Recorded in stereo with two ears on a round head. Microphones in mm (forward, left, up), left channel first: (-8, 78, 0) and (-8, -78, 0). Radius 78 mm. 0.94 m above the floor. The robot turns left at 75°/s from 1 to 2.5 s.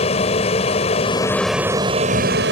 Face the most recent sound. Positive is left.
turn(degrees=-75)